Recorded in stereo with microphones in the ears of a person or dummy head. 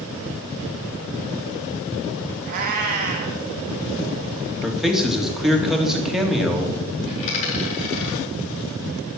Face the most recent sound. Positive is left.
turn(degrees=35)  # may be behind; listen again after turning